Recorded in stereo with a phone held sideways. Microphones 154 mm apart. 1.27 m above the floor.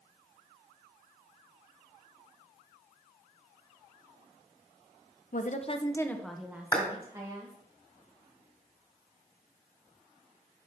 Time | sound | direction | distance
5.3 | a woman speaking | 60° left (ahead or behind) | 0.8 m
6.7 | a clap | 20° left (ahead or behind) | 3.5 m